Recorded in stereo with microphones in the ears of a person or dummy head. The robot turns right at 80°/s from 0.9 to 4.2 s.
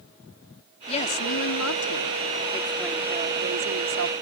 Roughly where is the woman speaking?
Ahead left.